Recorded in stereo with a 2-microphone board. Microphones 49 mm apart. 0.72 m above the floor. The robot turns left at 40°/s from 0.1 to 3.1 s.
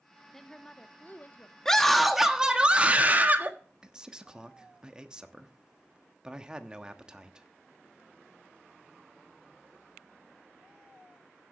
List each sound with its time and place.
0.3 s a woman speaking: 170° left, 1.1 m; by 1.6 s 125° left, 1.1 m
1.6 s a scream: 15° left, 1.4 m; by 3.5 s 45° right, 1.4 m
3.8 s a man speaking: 15° right (ahead or behind), 1.0 m